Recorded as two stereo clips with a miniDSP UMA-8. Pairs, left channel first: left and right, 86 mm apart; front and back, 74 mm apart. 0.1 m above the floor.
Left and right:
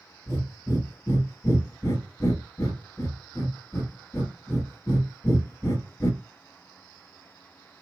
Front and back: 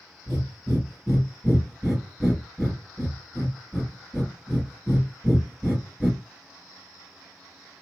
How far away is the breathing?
About 1.6 m.